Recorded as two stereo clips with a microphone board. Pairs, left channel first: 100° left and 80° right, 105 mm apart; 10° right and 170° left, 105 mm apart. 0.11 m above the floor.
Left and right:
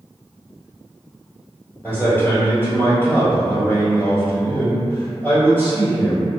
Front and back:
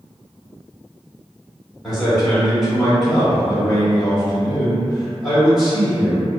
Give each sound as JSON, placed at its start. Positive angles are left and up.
{"t": 1.8, "sound": "a man speaking", "azimuth_deg": 85, "distance_m": 1.8}